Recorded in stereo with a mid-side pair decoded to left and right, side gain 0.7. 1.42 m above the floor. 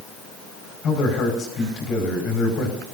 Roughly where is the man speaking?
Ahead left.